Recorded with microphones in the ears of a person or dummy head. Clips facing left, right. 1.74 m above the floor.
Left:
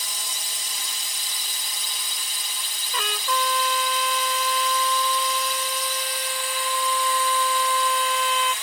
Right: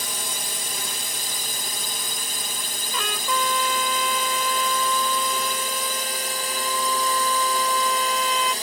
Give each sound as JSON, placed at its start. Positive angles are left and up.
{"t": 0.0, "sound": "a drone", "side_deg": -40}
{"t": 2.9, "sound": "a trumpet", "side_deg": 0}